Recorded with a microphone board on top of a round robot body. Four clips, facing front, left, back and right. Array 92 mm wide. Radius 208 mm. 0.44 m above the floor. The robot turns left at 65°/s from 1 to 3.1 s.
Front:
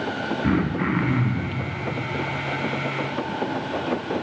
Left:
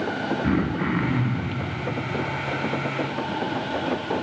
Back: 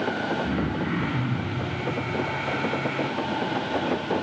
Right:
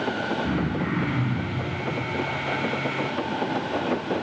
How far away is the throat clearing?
About 0.9 m.